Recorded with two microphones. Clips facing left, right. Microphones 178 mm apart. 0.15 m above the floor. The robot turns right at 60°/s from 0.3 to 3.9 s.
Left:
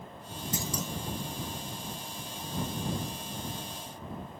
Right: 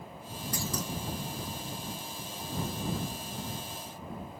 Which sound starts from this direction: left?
A clunk, at 0.5 s.